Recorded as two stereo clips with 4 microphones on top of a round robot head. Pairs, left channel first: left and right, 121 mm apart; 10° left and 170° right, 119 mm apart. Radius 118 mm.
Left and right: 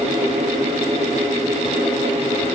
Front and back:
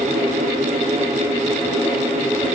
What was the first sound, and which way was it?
Only background noise.